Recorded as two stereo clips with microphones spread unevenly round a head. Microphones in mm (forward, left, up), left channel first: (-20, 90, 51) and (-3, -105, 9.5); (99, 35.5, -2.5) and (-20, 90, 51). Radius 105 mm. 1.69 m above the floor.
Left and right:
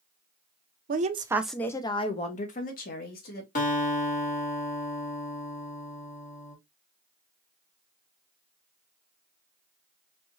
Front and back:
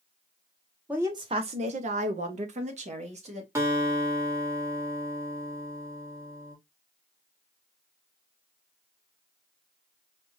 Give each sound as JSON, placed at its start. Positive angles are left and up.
{"t": 0.9, "sound": "a woman speaking", "azimuth_deg": -130, "distance_m": 0.6}
{"t": 3.5, "sound": "a guitar", "azimuth_deg": 120, "distance_m": 1.6}